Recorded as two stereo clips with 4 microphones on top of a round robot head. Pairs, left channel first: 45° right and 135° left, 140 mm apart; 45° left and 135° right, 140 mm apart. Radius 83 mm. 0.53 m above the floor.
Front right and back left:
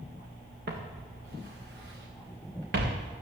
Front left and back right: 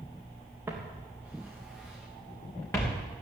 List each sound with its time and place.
0.7 s footsteps: 150° left, 3.5 m; by 3.0 s 120° left, 3.5 m